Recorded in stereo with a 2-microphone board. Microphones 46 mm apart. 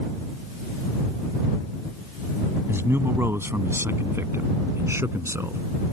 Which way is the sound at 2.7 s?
65° right (ahead or behind).